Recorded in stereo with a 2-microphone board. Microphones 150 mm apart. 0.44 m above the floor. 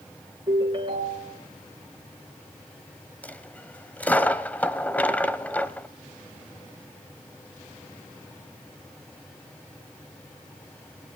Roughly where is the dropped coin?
Centre.